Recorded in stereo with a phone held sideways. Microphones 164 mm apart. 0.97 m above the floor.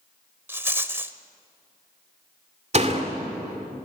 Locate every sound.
0.5 s a rattle: 15° right (ahead or behind), 0.8 m
2.7 s a door slam: 45° right (ahead or behind), 2 m